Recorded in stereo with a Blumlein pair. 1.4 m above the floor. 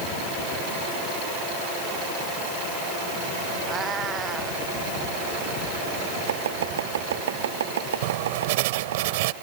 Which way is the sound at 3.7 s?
20° right.